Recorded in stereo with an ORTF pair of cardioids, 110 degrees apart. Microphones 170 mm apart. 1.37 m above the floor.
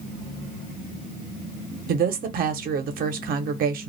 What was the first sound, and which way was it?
A woman speaking, 60° right.